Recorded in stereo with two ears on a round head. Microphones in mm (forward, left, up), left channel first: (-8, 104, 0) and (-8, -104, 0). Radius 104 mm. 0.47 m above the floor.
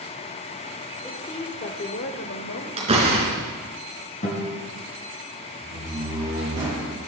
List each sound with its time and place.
1.0 s a woman speaking: 10° left (ahead or behind), 1.5 m; by 2.7 s 55° left (ahead or behind), 2 m
2.8 s a door slam: 25° right (ahead or behind), 4 m
4.2 s a guitar: 35° left (ahead or behind), 4 m
5.6 s a door slam: 15° right (ahead or behind), 6.5 m